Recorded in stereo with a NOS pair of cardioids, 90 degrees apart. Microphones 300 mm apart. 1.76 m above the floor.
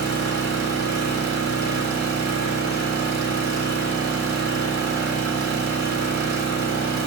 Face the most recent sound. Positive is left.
turn(degrees=-60)